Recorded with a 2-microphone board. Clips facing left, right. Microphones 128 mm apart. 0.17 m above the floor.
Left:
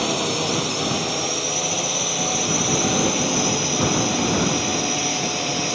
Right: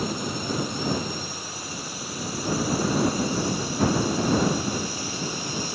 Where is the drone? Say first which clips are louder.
Left 6 dB; 75° left (ahead or behind); by 5.7 s 70° left (ahead or behind).